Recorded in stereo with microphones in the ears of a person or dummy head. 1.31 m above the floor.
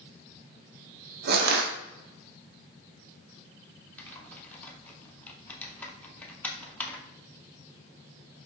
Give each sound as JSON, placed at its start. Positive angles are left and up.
{"t": 1.3, "sound": "crushing", "side_deg": -60, "distance_m": 0.6}
{"t": 4.0, "sound": "typing on a keyboard", "side_deg": 5, "distance_m": 0.6}